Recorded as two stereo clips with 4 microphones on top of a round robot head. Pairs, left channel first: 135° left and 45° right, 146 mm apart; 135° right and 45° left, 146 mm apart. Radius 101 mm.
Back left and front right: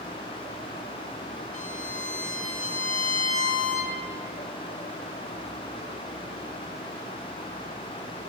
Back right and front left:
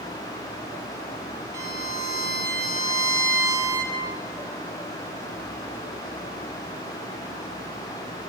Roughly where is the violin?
Left.